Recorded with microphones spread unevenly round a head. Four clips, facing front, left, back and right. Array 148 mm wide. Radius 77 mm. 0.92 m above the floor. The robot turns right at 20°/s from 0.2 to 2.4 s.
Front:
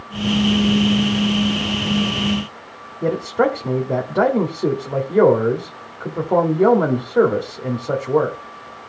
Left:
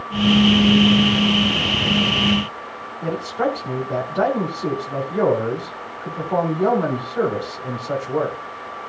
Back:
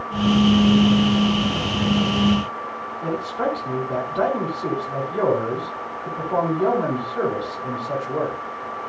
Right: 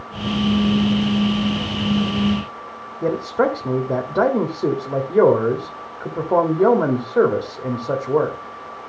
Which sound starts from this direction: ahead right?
A man speaking, at 3.0 s.